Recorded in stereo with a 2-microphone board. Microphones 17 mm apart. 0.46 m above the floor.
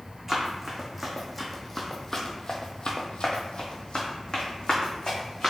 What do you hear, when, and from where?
0.3 s running footsteps: 15° right (ahead or behind), 1.6 m; by 5.5 s 60° left (ahead or behind), 1.8 m